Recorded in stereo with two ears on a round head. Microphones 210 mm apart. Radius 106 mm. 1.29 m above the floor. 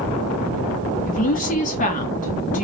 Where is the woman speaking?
35° left (ahead or behind), 2 m.